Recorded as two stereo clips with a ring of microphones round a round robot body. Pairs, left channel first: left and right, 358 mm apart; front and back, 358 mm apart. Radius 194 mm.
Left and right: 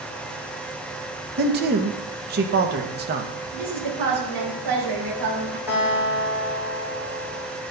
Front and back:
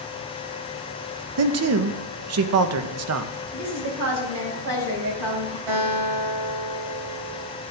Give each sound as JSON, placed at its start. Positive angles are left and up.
{"t": 1.4, "sound": "a man speaking", "azimuth_deg": -145, "distance_m": 0.6}
{"t": 3.5, "sound": "a woman speaking", "azimuth_deg": -130, "distance_m": 4.5}
{"t": 5.7, "sound": "a guitar", "azimuth_deg": -175, "distance_m": 3.0}